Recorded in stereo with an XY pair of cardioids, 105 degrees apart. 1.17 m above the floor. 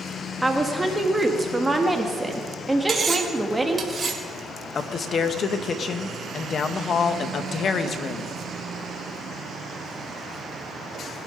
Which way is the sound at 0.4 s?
10° right.